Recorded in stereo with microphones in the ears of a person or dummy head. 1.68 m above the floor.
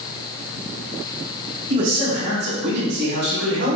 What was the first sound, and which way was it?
A man speaking, 50° right (ahead or behind).